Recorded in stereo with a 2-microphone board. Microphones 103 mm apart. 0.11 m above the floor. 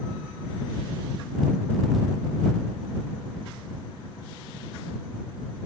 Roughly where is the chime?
No chime in this recording.